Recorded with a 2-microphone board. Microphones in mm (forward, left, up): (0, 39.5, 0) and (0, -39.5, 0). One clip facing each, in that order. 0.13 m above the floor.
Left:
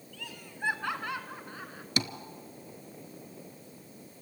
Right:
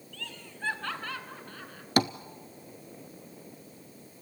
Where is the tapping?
50° right (ahead or behind), 0.7 m.